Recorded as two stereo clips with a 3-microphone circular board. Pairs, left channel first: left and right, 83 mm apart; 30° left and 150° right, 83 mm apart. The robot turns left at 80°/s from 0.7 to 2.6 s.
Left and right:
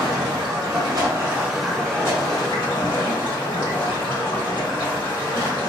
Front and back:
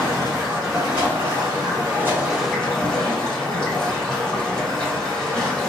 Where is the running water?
100° right, 1.7 m; by 5.7 s 105° left, 1.7 m.